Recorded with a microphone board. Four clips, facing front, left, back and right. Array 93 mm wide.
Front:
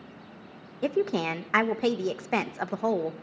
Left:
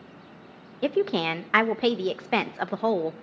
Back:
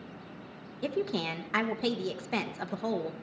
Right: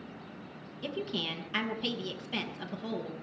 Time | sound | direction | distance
0.8 | a woman speaking | 65° left | 0.9 m